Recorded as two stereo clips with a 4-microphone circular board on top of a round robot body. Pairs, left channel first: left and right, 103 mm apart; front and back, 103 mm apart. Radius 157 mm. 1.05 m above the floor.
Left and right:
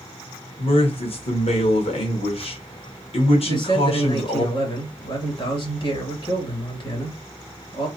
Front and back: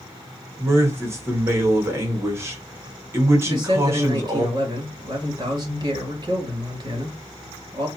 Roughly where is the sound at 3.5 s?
Behind left.